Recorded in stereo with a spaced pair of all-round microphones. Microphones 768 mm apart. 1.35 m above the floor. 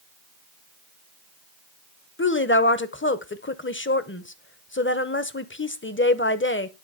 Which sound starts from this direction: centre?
A woman speaking, at 2.2 s.